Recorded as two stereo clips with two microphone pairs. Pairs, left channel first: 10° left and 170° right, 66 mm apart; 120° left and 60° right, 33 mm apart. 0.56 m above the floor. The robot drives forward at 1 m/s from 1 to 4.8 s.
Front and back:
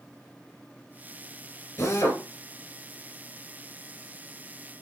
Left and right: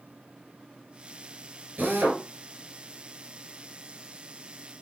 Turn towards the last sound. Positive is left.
turn(degrees=-80)